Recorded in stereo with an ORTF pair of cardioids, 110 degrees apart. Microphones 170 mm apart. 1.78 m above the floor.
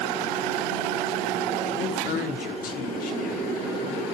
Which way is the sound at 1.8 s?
60° left.